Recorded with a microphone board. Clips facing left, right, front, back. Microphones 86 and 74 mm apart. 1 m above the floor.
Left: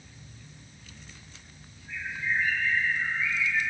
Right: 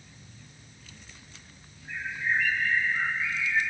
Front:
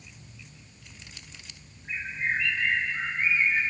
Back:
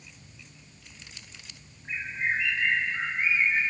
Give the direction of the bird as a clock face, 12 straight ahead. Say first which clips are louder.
Right 2 dB, even; 3 o'clock.